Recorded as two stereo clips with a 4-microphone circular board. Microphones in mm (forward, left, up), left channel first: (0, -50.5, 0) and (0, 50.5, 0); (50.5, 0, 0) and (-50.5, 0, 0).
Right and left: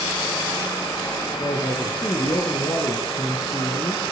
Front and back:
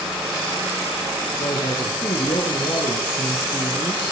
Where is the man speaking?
40° right, 7 m; by 4.0 s 50° right, 8 m.